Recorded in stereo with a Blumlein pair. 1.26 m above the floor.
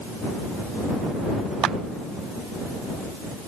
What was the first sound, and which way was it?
A clap, 30° right.